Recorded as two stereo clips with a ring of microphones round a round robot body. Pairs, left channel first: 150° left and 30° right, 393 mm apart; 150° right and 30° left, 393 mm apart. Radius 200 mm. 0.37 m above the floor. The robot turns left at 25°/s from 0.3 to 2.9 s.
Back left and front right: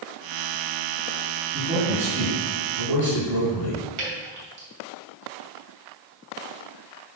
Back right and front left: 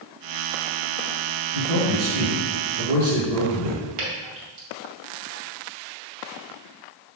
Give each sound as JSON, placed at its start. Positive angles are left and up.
{"t": 1.5, "sound": "a man speaking", "azimuth_deg": 40, "distance_m": 3.5}
{"t": 4.0, "sound": "dripping", "azimuth_deg": 10, "distance_m": 2.5}